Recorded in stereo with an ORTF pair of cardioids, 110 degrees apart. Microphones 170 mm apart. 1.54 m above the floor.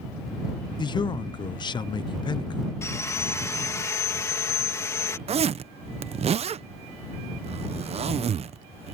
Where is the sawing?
15° left.